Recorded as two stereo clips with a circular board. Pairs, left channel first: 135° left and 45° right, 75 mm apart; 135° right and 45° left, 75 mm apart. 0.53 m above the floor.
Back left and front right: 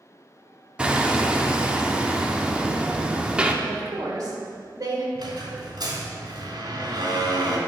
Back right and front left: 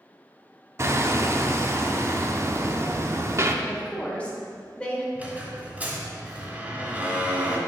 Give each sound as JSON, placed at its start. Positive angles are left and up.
{"t": 0.8, "sound": "hammering", "azimuth_deg": 25, "distance_m": 0.5}
{"t": 3.6, "sound": "a woman speaking", "azimuth_deg": -65, "distance_m": 1.5}
{"t": 5.2, "sound": "a squeak", "azimuth_deg": -25, "distance_m": 1.6}